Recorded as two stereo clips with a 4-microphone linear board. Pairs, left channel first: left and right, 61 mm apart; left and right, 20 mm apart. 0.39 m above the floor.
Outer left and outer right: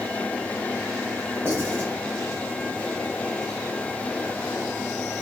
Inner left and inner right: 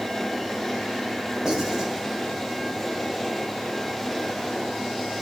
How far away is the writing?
About 2.0 m.